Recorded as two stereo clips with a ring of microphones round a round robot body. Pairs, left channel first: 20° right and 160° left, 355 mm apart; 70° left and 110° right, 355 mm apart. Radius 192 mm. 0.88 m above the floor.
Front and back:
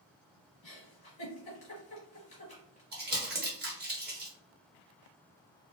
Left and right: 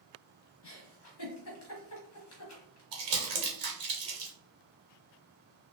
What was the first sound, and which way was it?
A giggle, 40° left.